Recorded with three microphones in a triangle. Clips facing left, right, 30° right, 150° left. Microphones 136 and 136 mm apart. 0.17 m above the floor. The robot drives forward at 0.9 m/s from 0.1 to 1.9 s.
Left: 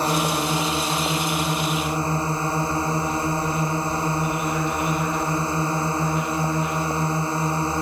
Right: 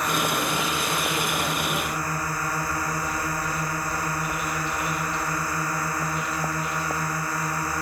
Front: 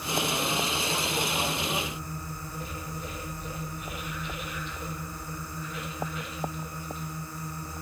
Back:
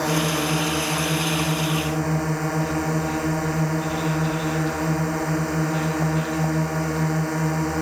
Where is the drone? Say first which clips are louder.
Left 3 dB, back 8 dB; 150° left; by 7.8 s 155° left.